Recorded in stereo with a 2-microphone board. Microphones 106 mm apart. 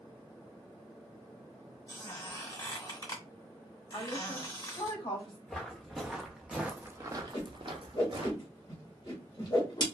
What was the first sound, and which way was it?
A squeak, 35° left (ahead or behind).